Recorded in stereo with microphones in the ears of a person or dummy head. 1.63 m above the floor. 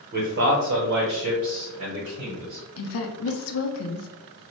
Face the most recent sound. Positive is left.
turn(degrees=75)  # may be behind; listen again after turning